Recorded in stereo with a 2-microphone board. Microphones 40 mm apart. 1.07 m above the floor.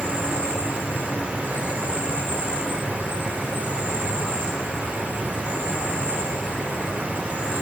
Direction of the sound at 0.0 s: 40° right (ahead or behind).